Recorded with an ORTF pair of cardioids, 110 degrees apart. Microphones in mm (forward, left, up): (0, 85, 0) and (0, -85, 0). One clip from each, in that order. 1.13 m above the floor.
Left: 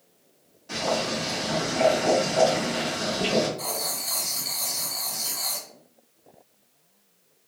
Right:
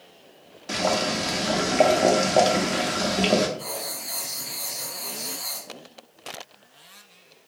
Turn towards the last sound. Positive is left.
turn(degrees=65)